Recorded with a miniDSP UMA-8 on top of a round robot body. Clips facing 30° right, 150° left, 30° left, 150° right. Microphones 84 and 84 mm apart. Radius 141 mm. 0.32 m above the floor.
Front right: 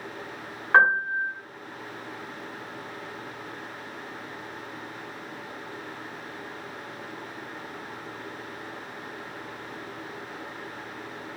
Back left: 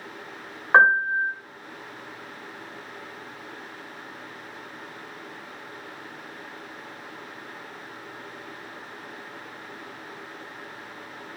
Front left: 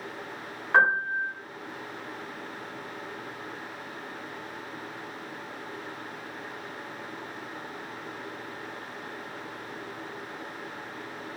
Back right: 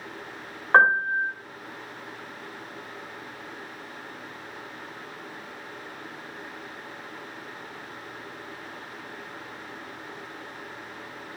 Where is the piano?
155° right, 1.1 m.